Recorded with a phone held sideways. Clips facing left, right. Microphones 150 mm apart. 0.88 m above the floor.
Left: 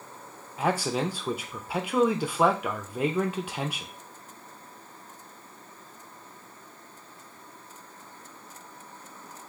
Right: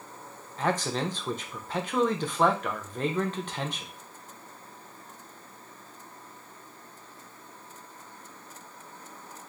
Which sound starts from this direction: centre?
A man speaking, at 0.6 s.